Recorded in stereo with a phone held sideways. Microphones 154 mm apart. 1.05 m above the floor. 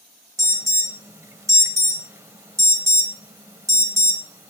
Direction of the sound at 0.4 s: 20° right (ahead or behind).